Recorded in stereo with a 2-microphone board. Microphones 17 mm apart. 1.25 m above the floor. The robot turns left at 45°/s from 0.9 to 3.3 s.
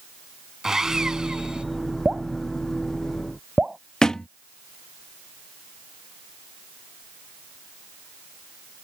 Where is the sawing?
30° right; by 1.6 s 65° right.